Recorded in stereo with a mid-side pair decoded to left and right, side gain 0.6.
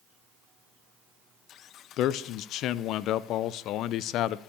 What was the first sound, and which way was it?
A man speaking, 60° left.